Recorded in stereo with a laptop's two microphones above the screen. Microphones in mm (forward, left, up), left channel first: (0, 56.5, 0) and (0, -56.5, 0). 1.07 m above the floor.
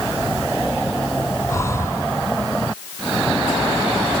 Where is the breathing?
25° left (ahead or behind).